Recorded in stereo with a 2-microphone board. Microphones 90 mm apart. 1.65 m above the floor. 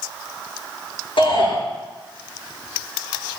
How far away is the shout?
About 7 m.